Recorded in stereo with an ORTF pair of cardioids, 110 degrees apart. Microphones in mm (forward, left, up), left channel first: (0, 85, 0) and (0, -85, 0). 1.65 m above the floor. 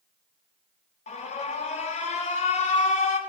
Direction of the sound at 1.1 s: 40° left.